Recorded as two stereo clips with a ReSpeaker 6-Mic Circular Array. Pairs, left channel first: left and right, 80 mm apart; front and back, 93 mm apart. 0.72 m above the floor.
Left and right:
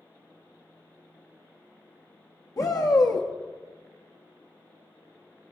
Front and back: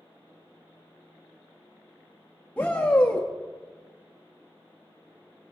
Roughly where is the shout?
Left.